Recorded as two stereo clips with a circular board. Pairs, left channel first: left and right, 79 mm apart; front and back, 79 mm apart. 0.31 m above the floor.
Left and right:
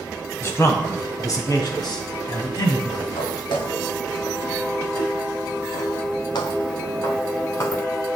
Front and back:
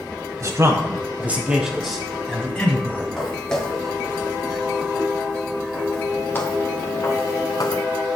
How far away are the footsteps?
About 4.5 m.